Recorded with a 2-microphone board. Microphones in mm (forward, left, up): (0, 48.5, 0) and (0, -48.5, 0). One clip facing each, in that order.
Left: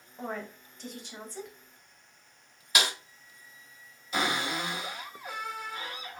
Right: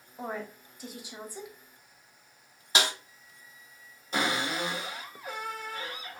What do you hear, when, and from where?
0.2 s a woman speaking: 10° right (ahead or behind), 0.8 m
2.8 s a snare drum: 25° right (ahead or behind), 1.1 m
4.1 s a cupboard door: 40° right (ahead or behind), 1.8 m